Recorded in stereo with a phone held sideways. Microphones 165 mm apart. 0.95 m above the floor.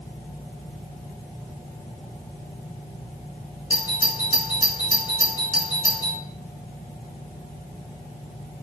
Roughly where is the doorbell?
Left.